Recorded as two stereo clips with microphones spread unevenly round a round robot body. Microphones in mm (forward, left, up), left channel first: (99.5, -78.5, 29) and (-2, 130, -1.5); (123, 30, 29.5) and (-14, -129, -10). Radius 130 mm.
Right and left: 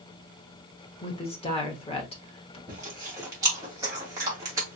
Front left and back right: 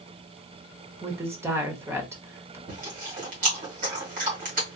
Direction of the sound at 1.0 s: 110° right.